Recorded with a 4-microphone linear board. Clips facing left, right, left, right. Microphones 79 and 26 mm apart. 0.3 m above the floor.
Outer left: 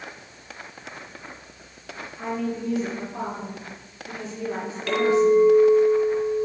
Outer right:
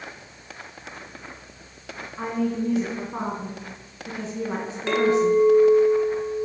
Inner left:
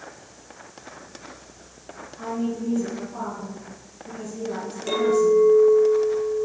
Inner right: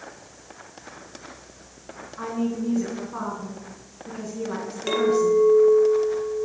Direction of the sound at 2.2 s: 55° right (ahead or behind).